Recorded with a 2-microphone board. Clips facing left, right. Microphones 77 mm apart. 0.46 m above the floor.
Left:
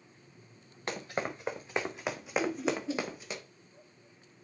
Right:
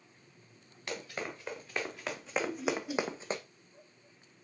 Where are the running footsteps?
40° left (ahead or behind), 2.5 m; by 3.4 s 40° right (ahead or behind), 1.2 m.